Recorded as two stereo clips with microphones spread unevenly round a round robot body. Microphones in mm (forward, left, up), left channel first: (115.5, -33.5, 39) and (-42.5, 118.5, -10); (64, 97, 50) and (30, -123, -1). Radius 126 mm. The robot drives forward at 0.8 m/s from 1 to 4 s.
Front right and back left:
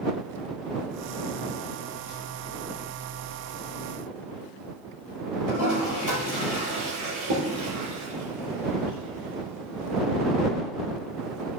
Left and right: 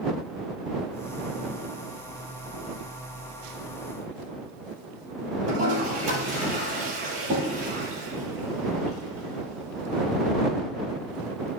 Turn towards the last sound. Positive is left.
turn(degrees=-160)